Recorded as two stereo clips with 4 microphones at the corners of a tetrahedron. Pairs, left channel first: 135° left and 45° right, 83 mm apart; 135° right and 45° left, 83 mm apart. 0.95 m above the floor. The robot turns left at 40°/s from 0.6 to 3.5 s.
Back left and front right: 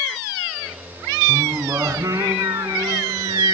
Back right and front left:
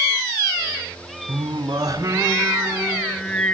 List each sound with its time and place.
1.3 s singing: 25° left, 2.5 m; by 3.5 s 65° right, 2.5 m